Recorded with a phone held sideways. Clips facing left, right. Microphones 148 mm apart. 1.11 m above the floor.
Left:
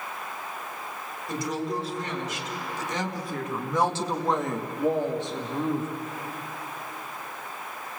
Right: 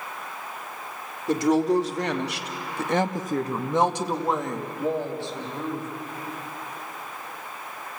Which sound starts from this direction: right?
A woman speaking, at 1.3 s.